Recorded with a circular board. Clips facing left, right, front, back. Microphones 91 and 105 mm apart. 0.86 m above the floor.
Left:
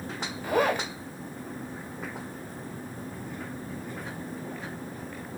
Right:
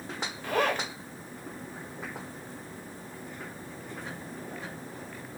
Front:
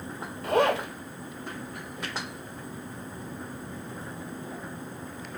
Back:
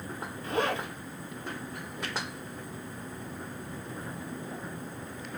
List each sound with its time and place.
0.4 s a zipper: 10° left, 1.4 m